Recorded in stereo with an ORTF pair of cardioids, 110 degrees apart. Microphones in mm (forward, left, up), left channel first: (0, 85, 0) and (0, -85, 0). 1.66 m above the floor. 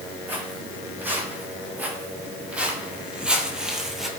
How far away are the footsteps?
About 5.5 m.